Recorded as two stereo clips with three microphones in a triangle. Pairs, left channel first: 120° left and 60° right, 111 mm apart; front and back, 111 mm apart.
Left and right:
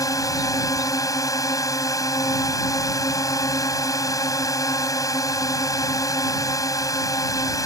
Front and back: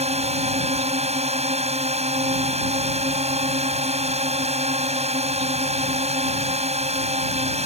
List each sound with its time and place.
0.0 s a drone: straight behind